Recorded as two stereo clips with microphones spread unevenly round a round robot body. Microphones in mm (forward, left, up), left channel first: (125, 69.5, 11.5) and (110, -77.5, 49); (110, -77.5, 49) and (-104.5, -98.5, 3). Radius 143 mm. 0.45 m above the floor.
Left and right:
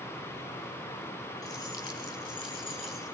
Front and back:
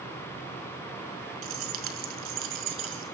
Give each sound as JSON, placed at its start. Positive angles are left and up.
{"t": 1.4, "sound": "keys jangling", "azimuth_deg": 155, "distance_m": 5.0}